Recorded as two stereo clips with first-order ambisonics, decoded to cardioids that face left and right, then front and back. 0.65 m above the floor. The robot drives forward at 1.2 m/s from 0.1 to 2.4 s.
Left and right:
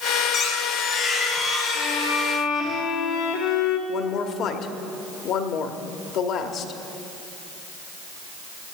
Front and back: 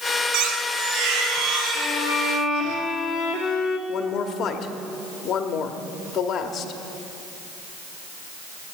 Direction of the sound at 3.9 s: 50° left.